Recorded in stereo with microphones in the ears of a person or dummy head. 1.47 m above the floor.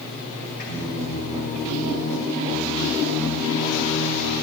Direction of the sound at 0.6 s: 55° left (ahead or behind).